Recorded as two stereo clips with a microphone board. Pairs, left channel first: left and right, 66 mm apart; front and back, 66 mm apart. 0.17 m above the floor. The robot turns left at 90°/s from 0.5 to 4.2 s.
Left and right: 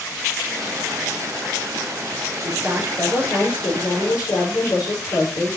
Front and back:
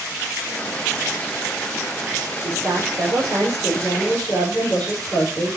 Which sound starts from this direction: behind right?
A woman speaking, at 2.4 s.